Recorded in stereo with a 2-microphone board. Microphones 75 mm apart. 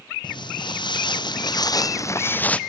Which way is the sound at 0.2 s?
85° left.